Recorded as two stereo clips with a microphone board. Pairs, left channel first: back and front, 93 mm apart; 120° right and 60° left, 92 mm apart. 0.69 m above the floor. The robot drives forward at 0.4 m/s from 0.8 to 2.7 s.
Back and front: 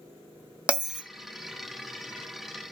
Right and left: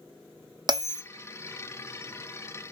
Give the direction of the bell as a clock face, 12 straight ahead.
10 o'clock.